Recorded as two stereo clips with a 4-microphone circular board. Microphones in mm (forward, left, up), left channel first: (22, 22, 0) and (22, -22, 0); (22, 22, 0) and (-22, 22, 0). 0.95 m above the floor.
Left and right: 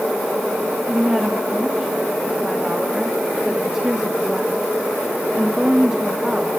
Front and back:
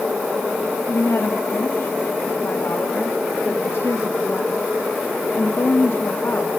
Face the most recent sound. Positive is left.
turn(degrees=-15)